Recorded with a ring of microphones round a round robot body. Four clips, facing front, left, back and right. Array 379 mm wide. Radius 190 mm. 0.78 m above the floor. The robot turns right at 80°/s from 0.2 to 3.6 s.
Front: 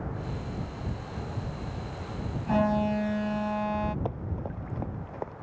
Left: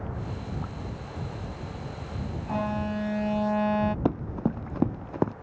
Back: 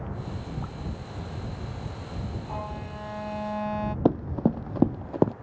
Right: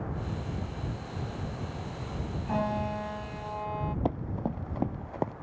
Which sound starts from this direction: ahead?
An alarm, at 2.5 s.